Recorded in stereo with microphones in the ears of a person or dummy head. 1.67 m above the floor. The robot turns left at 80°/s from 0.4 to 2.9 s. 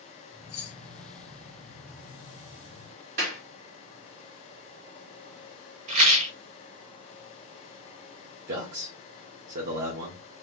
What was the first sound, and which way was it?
Keys jangling, 65° left (ahead or behind).